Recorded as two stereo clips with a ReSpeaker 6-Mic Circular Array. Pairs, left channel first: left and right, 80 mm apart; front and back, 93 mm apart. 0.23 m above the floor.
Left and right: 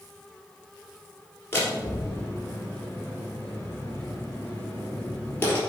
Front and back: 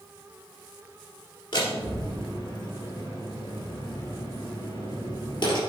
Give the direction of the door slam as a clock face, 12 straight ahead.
11 o'clock.